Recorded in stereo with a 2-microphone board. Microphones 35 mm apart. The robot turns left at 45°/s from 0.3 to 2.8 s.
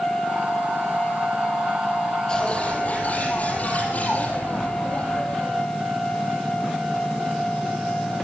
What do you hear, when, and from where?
2.3 s a bird: 20° left (ahead or behind), 5.5 m; by 5.6 s 45° left (ahead or behind), 5.5 m